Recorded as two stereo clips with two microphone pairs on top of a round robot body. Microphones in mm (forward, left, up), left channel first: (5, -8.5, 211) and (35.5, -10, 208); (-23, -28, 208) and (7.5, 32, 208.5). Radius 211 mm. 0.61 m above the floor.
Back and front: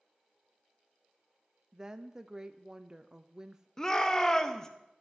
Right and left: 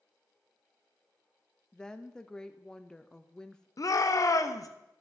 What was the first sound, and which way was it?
A woman speaking, 45° right.